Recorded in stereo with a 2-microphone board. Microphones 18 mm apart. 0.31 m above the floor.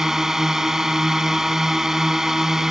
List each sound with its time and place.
0.0 s a drone: 30° right (ahead or behind)